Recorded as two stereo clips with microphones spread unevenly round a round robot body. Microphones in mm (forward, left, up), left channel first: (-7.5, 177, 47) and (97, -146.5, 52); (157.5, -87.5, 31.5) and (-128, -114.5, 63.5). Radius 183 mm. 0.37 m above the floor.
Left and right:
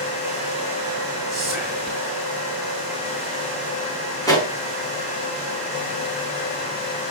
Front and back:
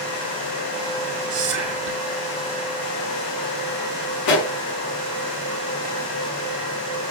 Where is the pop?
30° left, 4.5 m.